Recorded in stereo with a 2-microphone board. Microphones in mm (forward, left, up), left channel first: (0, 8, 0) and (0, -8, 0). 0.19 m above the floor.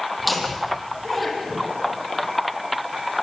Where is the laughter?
5° right (ahead or behind), 8 m.